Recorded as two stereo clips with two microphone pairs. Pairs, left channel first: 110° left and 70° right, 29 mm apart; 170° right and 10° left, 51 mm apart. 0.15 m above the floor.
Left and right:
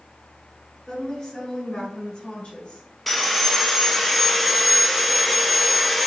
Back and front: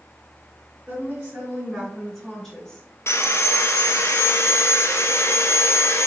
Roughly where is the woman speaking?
Ahead left.